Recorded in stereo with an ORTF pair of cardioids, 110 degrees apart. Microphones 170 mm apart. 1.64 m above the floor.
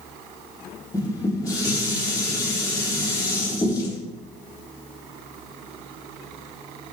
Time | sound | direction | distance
0.9 | dishes clattering | 20° left | 3 m